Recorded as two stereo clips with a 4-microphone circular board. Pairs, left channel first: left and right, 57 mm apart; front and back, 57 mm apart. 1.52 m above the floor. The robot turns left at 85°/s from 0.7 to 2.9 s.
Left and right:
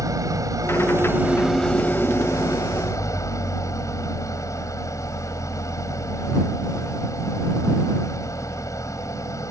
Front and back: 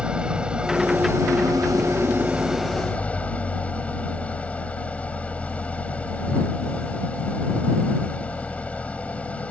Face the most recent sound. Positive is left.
turn(degrees=65)